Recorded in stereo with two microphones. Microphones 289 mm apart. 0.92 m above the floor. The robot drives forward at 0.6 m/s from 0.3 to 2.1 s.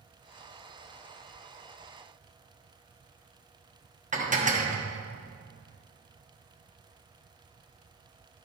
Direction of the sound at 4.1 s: 25° right (ahead or behind).